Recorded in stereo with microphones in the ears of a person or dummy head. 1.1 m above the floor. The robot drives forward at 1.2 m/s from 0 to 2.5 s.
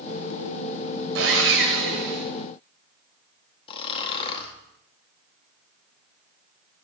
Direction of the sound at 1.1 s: 75° right (ahead or behind).